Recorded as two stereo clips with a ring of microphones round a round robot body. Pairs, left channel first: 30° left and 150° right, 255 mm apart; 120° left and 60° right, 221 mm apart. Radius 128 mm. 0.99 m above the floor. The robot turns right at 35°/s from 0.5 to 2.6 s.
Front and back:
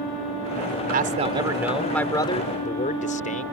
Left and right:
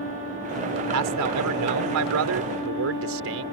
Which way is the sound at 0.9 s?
90° right.